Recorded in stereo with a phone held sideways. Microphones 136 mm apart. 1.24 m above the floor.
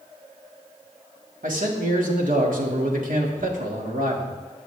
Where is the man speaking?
85° right, 2 m.